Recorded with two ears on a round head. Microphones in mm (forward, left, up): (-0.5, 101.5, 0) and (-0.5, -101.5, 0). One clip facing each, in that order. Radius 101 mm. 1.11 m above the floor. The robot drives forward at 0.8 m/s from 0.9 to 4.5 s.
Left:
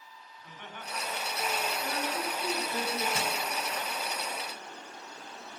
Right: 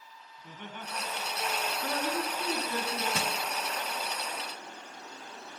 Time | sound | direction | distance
0.4 | laughter | 85° right | 8 m
1.8 | a woman speaking | 70° right (ahead or behind) | 9.5 m
3.1 | crushing | 60° right (ahead or behind) | 2.5 m